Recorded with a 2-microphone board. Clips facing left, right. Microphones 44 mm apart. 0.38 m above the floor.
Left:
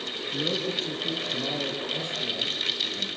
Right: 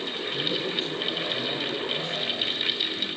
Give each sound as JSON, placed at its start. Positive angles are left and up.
{"t": 0.3, "sound": "a man speaking", "side_deg": 45, "distance_m": 6.5}